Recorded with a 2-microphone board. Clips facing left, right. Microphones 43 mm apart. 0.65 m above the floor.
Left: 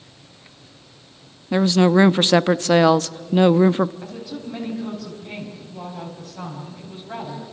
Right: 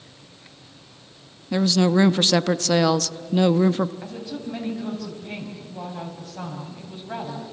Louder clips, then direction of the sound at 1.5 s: Left 4 dB; 25° left (ahead or behind).